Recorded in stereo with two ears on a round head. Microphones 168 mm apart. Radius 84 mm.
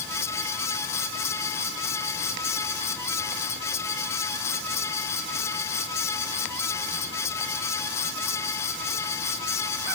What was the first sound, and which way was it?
Only background noise.